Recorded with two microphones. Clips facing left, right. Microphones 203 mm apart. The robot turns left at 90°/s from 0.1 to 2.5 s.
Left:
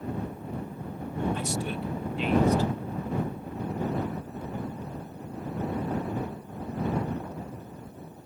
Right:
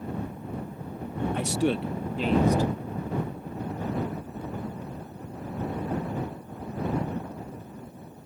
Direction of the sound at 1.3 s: 60° right.